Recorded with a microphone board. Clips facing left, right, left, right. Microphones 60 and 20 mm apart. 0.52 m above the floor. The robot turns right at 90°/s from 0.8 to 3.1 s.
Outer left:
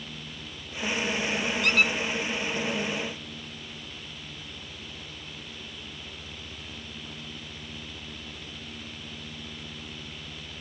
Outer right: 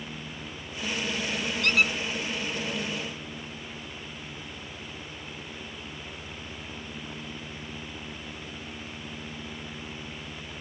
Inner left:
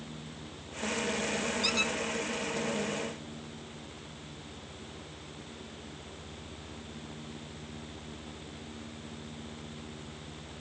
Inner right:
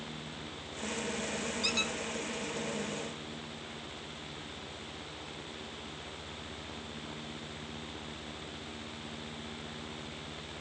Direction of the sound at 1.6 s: 10° left (ahead or behind).